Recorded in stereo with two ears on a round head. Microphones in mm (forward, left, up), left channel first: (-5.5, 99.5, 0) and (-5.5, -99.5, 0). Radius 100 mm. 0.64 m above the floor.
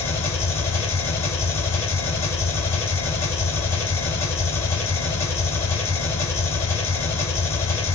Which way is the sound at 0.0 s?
15° left (ahead or behind).